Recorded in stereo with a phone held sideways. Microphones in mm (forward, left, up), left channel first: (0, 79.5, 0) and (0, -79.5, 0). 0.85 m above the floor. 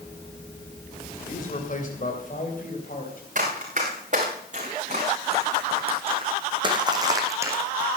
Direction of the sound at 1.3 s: 55° left (ahead or behind).